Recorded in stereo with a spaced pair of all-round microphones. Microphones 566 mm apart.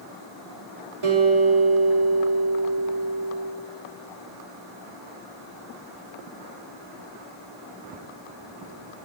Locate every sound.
1.0 s a guitar: 65° right (ahead or behind), 3 m